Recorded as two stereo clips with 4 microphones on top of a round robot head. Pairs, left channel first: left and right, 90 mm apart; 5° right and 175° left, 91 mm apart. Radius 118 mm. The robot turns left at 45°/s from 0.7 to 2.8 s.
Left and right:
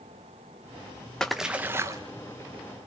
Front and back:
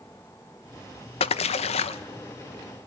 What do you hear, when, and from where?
1.2 s a splash: 5° left, 0.6 m; by 2.0 s 30° right, 0.6 m